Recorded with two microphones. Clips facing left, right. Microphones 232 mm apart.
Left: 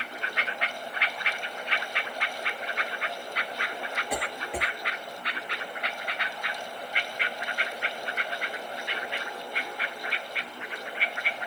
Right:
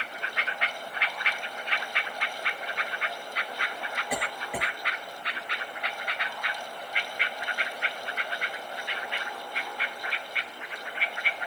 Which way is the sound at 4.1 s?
5° right (ahead or behind).